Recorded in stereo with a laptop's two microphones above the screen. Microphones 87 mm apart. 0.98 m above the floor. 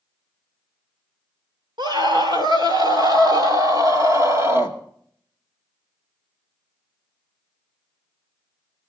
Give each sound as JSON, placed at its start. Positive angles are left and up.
{"t": 1.8, "sound": "a scream", "side_deg": -60, "distance_m": 3.0}